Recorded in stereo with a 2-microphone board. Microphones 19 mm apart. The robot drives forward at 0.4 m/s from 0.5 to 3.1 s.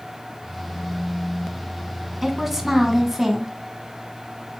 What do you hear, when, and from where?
2.2 s a woman speaking: 10° right (ahead or behind), 1.5 m; by 3.5 s 15° right (ahead or behind), 1.3 m